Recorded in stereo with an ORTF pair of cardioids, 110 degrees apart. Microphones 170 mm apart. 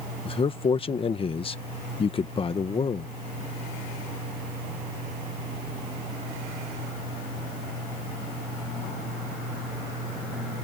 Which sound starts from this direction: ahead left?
A man speaking, at 0.2 s.